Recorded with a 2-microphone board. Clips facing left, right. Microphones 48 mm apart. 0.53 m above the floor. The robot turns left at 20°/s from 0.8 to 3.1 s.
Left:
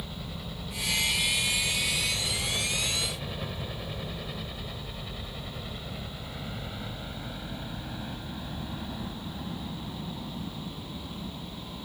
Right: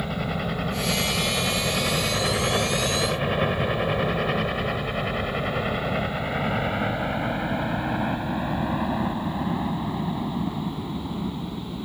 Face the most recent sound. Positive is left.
turn(degrees=-45)  # may be behind; listen again after turning